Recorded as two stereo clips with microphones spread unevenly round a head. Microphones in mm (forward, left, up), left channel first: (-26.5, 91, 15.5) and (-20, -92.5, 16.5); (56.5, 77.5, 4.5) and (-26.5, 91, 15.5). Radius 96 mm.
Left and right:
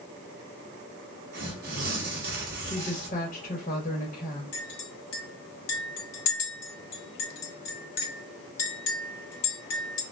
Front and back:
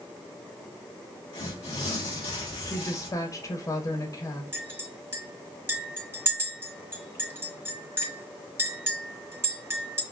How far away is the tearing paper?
About 1.2 m.